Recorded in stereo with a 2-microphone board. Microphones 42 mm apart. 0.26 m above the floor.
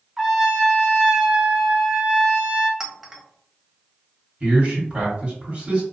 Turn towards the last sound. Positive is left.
turn(degrees=-30)  # may be behind; listen again after turning